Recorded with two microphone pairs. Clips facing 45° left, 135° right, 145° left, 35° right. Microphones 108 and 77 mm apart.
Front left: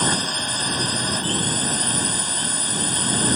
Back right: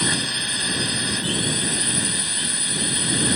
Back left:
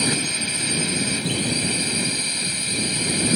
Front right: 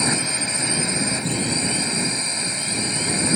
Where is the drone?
15° left.